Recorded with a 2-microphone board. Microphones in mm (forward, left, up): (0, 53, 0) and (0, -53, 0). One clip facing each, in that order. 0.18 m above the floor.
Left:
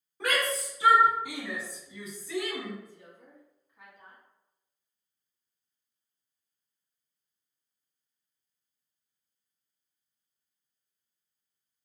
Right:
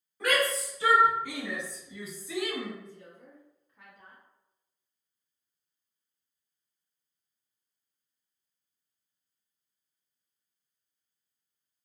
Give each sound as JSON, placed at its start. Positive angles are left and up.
{"t": 0.2, "sound": "a shout", "side_deg": 25, "distance_m": 1.6}
{"t": 2.8, "sound": "a woman speaking", "side_deg": 10, "distance_m": 1.1}